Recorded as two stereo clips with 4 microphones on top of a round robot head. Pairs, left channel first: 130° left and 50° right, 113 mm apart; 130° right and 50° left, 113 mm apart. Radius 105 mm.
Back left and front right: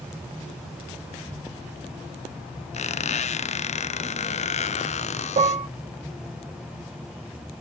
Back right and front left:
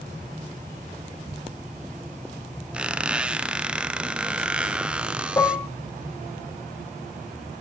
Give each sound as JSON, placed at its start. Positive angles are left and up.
{"t": 2.7, "sound": "a squeak", "azimuth_deg": 130, "distance_m": 0.5}
{"t": 5.4, "sound": "dishes clattering", "azimuth_deg": -65, "distance_m": 0.9}